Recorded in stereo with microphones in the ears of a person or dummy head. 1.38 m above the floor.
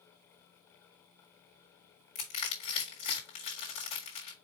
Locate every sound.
2.1 s crushing: 40° left (ahead or behind), 1.7 m